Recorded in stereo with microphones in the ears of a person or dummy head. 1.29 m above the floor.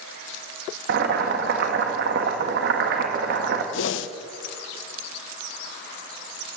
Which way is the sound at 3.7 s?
75° left (ahead or behind).